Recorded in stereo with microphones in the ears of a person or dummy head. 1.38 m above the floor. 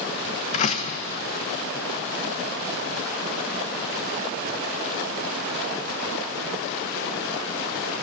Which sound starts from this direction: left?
A door slam, at 0.5 s.